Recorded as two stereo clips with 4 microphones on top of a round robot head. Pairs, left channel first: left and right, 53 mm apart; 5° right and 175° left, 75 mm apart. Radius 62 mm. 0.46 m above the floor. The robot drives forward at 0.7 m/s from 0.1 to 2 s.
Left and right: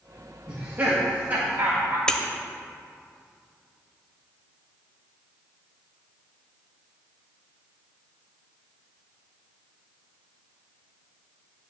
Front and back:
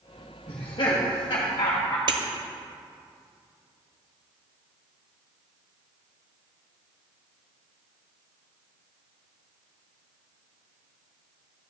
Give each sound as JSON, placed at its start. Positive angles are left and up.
{"t": 0.5, "sound": "laughter", "azimuth_deg": -30, "distance_m": 2.0}
{"t": 2.1, "sound": "breaking glass", "azimuth_deg": 165, "distance_m": 1.1}